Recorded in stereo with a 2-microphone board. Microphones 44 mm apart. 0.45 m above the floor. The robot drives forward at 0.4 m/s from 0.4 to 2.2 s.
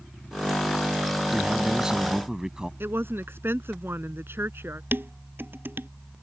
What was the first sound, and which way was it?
A man speaking, 15° right (ahead or behind).